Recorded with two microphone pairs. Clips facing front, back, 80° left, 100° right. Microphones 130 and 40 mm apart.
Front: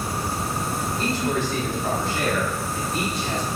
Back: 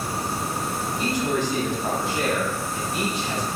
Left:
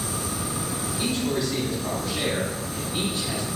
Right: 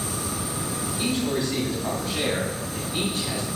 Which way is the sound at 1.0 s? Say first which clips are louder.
Back 1 dB, right 1 dB; 130° right.